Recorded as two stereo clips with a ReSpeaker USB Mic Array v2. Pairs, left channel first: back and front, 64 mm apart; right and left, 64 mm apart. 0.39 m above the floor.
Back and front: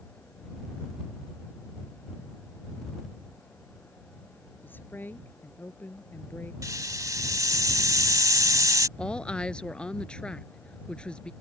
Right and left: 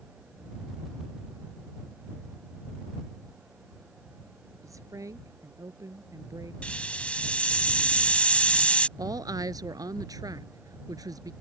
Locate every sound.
4.6 s a woman speaking: 120° left
6.6 s a hiss: 20° right
9.0 s a woman speaking: 105° left